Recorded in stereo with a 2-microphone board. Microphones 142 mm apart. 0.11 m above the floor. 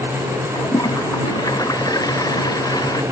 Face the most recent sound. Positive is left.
turn(degrees=25)  # may be behind; listen again after turning